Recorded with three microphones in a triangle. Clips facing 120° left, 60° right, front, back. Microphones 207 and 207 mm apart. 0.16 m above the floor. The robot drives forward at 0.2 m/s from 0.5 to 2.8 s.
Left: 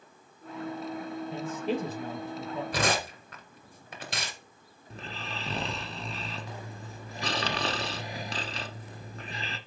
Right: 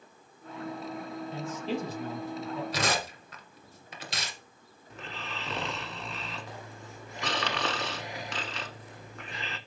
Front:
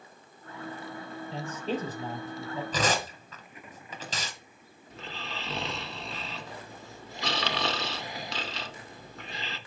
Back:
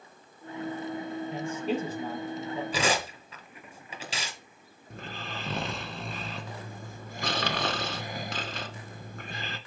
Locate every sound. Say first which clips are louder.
1.3 s a man speaking: left 2 dB, back 1 dB; 100° left, 3.5 m; by 2.6 s 105° left, 3.5 m
2.7 s tearing paper: left 2 dB, front 1 dB; 100° left, 2 m
4.9 s snoring: left 1 dB, back 1 dB; 165° left, 0.9 m